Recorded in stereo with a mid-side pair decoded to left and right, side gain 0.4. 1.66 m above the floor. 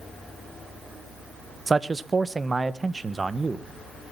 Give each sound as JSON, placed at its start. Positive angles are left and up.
{"t": 1.7, "sound": "a man speaking", "azimuth_deg": -30, "distance_m": 1.5}